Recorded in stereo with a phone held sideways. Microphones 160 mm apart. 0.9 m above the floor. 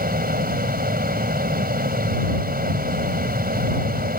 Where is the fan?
70° right (ahead or behind).